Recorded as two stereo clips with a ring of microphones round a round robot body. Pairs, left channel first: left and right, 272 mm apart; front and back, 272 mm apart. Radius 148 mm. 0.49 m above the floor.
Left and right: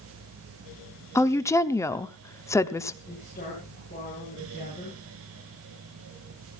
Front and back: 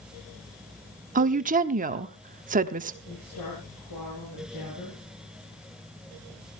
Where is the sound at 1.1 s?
160° left, 1.0 m.